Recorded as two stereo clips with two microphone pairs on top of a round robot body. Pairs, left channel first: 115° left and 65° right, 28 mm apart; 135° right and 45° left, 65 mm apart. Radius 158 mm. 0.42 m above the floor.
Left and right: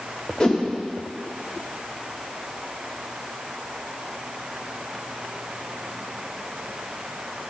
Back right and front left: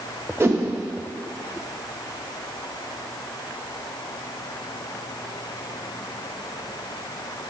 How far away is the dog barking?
I don't hear a dog barking.